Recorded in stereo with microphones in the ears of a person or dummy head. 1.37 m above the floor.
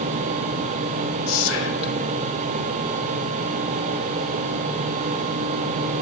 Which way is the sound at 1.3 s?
85° left.